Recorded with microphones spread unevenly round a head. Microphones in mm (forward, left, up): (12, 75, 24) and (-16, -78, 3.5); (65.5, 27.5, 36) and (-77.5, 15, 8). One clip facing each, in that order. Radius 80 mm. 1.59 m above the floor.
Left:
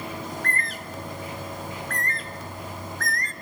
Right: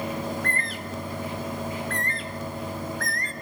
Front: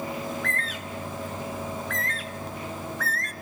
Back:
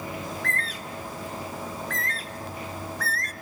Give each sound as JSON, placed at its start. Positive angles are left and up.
{"t": 0.2, "sound": "a bird", "azimuth_deg": 125, "distance_m": 0.6}